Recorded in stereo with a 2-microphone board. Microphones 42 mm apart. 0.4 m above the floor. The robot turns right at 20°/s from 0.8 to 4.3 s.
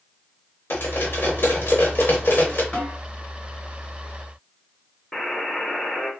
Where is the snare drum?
20° left (ahead or behind), 1.9 m; by 3.0 s 15° left (ahead or behind), 1.9 m.